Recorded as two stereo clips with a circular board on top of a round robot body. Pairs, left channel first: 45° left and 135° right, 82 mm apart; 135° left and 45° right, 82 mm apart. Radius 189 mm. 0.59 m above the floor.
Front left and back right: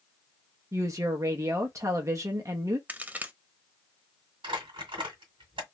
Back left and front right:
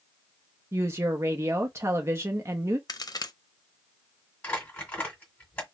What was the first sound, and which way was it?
A woman speaking, 95° right.